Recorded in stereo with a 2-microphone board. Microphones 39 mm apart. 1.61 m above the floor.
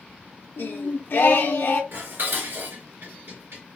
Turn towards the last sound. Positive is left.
turn(degrees=-65)  # may be behind; listen again after turning